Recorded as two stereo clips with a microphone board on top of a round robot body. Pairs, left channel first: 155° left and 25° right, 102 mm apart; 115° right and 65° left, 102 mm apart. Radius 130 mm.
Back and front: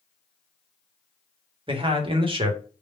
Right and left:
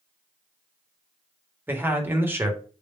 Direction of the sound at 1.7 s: Straight ahead.